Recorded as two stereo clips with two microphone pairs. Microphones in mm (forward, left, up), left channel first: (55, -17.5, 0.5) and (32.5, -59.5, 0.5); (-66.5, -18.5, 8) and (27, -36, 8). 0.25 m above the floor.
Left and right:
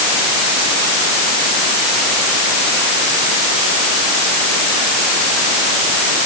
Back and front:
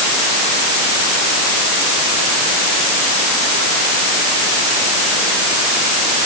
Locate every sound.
Only background noise.